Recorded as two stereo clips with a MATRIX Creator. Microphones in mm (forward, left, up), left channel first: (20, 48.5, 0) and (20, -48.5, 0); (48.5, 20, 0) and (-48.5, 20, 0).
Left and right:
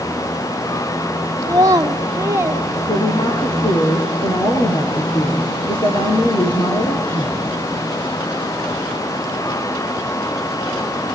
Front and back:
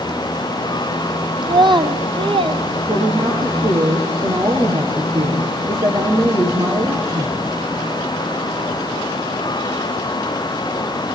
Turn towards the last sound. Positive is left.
turn(degrees=125)